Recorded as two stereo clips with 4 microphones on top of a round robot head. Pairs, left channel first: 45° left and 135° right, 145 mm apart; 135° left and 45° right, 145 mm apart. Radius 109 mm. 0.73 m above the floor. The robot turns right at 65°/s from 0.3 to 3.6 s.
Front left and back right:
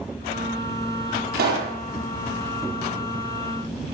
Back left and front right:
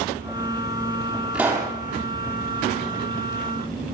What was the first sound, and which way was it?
A pop, 125° right.